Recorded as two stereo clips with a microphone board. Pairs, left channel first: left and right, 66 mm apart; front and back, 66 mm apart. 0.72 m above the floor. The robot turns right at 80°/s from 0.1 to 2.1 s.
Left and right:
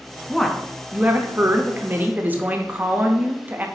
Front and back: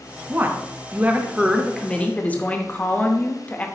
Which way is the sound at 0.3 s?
165° left.